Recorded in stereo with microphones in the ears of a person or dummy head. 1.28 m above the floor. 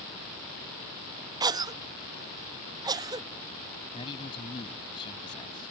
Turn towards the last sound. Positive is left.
turn(degrees=25)  # may be behind; listen again after turning